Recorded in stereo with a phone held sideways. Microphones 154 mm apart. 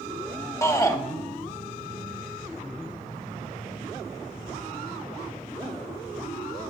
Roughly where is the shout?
Left.